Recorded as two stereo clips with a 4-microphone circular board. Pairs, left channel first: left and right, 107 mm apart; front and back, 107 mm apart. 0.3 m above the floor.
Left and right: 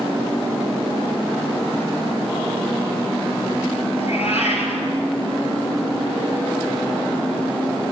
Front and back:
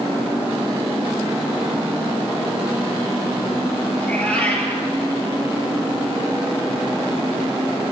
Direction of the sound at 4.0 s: 75° left.